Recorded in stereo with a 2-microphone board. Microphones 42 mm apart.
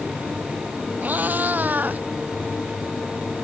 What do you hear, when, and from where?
1.0 s a cat meowing: 45° right (ahead or behind)